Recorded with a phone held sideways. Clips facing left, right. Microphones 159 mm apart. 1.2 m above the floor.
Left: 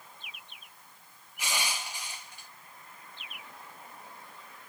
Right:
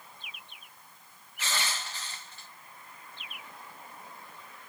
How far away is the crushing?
About 0.7 m.